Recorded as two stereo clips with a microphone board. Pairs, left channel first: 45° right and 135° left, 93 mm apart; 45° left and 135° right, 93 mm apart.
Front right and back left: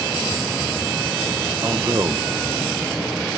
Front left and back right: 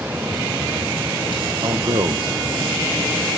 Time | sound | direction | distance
1.6 | a man speaking | 170° right | 1.0 m